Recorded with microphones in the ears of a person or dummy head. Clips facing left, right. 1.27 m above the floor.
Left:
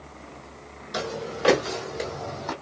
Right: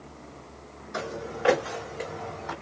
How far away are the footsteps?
About 1.7 m.